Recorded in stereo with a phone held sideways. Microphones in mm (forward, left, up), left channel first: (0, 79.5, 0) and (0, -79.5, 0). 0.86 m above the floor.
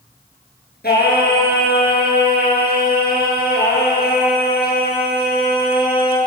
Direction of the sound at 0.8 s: 80° left.